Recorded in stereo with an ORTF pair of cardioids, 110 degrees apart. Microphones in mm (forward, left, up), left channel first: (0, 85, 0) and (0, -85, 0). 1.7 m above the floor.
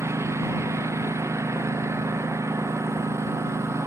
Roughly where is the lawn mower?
Ahead.